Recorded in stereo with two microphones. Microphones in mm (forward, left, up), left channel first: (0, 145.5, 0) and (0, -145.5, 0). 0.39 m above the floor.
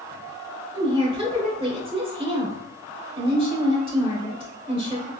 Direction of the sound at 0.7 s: 20° right (ahead or behind).